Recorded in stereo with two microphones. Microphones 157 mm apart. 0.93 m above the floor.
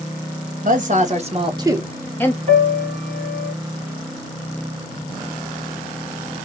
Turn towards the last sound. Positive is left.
turn(degrees=-50)  # may be behind; listen again after turning